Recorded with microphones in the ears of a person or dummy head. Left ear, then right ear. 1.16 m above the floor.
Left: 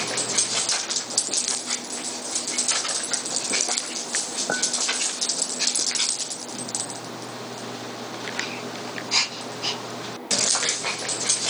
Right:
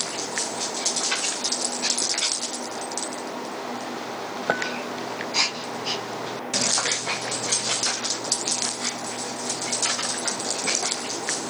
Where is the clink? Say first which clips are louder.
Right 2 dB; 45° right (ahead or behind), 4.5 m.